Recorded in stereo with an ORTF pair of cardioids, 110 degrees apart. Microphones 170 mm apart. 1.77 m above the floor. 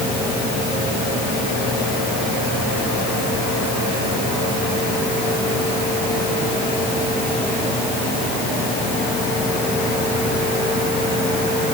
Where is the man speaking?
I don't hear a man speaking.